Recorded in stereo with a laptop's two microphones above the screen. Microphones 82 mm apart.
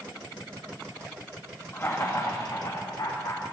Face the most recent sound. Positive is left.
turn(degrees=70)  # may be behind; listen again after turning